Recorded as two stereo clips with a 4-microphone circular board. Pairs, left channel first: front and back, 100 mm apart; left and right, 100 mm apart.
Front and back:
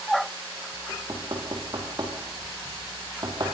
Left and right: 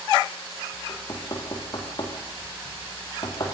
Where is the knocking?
135° left, 4 m.